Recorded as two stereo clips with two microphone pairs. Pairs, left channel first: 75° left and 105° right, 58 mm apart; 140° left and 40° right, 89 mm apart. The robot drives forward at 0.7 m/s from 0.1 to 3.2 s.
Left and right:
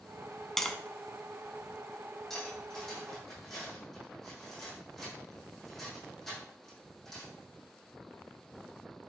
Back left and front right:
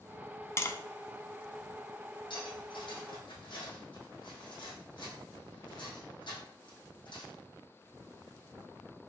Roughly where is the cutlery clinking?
Behind.